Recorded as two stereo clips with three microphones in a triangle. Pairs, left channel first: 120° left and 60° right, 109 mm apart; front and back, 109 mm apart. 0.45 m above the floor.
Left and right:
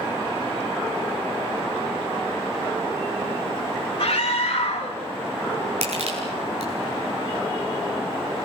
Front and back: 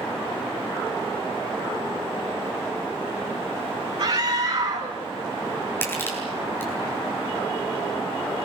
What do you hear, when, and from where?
4.0 s a scream: 155° left, 3.5 m
5.8 s crushing: 70° right, 8.5 m